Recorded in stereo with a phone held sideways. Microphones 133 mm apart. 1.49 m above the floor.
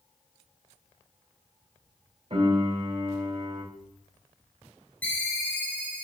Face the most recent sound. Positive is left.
turn(degrees=10)  # may be behind; listen again after turning